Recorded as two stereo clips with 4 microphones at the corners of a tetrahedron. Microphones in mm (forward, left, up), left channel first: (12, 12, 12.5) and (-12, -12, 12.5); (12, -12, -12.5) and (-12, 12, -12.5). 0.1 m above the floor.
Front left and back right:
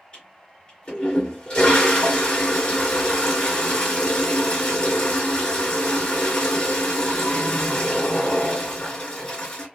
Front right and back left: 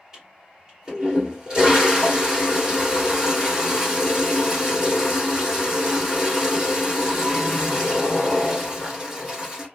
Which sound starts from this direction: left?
A toilet flushing, at 0.1 s.